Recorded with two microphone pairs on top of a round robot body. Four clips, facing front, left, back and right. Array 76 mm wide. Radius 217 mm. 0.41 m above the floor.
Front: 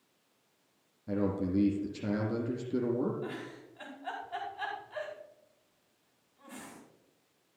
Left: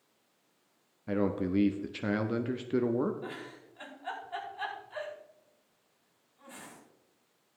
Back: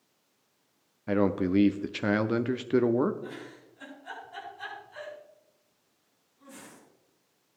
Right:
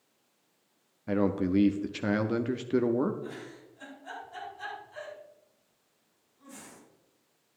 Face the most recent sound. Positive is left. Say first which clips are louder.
# right 1 dB, front 1 dB
turn(degrees=55)